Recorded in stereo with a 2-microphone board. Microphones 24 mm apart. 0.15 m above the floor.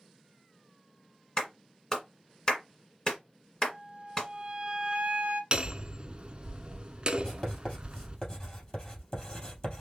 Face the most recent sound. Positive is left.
turn(degrees=35)  # may be behind; listen again after turning